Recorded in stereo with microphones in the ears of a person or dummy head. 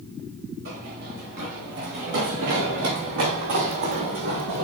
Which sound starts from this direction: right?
Running footsteps, at 0.7 s.